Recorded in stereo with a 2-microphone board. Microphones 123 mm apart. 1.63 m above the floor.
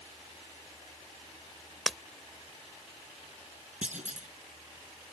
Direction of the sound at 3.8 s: 85° right.